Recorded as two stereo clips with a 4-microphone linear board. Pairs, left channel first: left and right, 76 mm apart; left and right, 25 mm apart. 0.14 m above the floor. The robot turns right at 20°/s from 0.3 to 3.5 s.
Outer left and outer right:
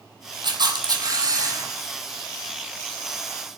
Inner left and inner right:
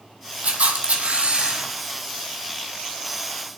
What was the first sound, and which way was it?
A camera shutter, 65° right (ahead or behind).